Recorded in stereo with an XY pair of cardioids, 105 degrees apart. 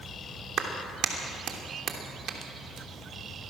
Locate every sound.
0.6 s a clap: 65° right, 3 m